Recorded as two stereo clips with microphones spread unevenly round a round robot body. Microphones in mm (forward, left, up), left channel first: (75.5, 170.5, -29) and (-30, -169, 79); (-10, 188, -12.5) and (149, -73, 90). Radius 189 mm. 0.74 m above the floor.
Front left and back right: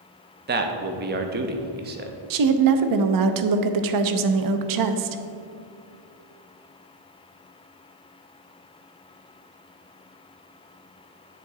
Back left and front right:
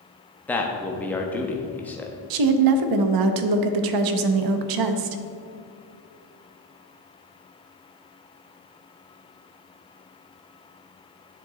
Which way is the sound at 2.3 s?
70° right.